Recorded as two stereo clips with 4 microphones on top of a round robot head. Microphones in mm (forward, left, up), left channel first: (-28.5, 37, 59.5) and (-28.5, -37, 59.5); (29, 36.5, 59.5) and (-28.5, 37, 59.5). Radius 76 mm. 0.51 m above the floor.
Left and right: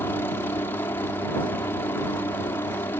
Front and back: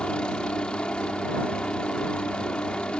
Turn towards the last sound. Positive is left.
turn(degrees=60)